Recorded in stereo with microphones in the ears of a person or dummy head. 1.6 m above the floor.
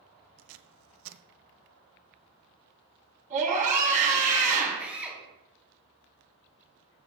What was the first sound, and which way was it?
Tape being pulled, 70° right (ahead or behind).